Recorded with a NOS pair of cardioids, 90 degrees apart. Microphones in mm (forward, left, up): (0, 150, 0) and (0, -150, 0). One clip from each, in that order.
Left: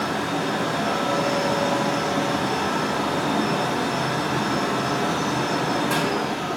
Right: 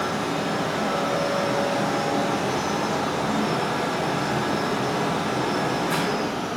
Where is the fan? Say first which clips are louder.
Left 1 dB; 70° left, 3.5 m.